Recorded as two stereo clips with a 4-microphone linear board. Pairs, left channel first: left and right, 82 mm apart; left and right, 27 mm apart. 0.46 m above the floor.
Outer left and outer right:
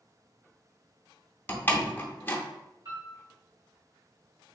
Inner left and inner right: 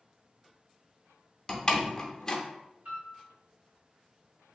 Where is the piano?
45° right (ahead or behind), 1.9 m.